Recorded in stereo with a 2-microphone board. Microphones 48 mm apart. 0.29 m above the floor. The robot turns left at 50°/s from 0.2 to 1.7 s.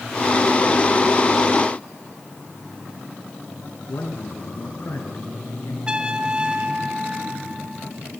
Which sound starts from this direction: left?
A man speaking, at 3.9 s.